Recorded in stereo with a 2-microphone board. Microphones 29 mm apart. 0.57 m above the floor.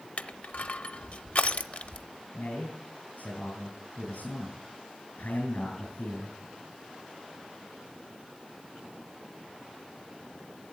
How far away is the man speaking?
About 3.5 m.